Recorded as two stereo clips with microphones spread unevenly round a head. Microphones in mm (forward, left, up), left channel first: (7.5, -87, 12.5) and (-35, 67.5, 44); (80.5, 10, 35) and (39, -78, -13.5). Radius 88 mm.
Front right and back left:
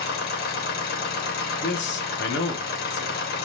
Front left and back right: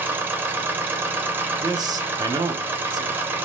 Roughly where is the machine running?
Ahead right.